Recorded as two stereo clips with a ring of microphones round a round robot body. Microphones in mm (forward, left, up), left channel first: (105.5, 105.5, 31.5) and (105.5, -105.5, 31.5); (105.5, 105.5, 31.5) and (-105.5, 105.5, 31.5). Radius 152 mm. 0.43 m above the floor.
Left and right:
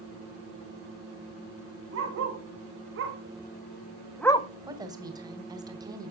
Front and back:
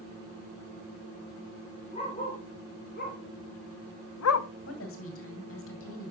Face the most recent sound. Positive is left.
turn(degrees=-20)